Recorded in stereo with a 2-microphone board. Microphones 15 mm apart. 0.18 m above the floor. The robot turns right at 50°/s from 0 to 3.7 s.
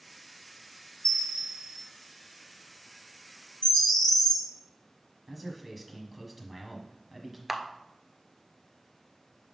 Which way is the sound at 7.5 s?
10° right (ahead or behind).